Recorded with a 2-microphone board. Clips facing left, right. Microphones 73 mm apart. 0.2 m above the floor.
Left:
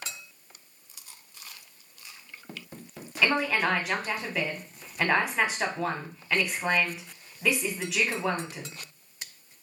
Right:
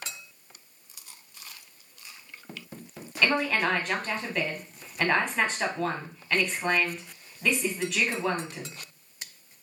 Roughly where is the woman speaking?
Centre.